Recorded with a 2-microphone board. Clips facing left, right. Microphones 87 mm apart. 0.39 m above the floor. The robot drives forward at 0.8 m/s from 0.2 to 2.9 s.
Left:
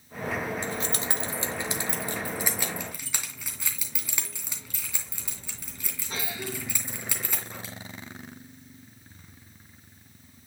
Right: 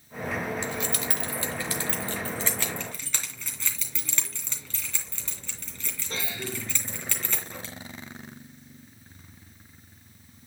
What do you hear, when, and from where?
0.6 s keys jangling: 40° left (ahead or behind), 0.8 m; by 7.7 s 15° left (ahead or behind), 2.5 m